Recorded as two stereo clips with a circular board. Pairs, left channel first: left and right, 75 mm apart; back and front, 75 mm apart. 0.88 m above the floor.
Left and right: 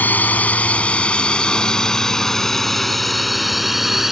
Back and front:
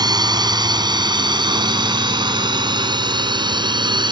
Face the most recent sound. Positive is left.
turn(degrees=-5)